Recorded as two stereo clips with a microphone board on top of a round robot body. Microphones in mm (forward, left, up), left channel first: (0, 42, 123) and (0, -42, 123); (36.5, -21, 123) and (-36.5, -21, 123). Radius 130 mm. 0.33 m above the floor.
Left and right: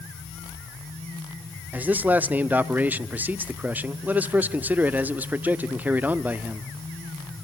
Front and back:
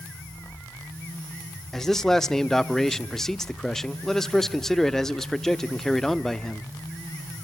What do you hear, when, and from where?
1.7 s a man speaking: 75° right, 0.9 m